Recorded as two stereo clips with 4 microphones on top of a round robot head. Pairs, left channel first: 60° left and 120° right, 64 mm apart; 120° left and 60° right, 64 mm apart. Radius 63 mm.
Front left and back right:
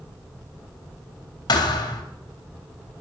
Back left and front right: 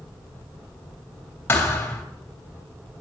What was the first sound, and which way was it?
A thud, 60° left.